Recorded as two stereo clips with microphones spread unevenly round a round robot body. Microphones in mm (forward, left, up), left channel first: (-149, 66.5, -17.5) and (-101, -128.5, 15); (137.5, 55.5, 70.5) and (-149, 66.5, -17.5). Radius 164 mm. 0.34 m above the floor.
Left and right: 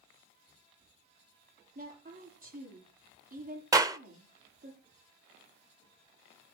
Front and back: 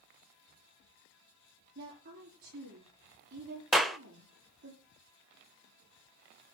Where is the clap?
145° right, 0.7 m.